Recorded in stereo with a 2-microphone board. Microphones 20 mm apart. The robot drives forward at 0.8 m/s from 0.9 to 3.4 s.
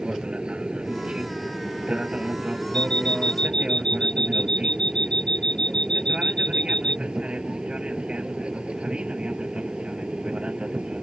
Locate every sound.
0.0 s an aircraft: 50° right (ahead or behind); by 11.0 s 55° right (ahead or behind)
2.7 s an alarm clock: 45° left (ahead or behind)